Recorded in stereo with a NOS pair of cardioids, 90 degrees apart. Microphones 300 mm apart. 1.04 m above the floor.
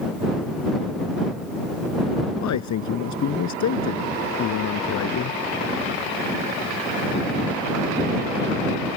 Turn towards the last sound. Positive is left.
turn(degrees=65)